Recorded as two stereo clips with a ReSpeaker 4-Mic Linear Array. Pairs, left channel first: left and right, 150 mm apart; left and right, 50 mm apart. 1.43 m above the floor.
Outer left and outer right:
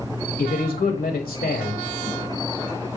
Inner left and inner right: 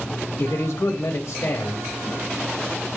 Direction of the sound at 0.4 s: 80° left.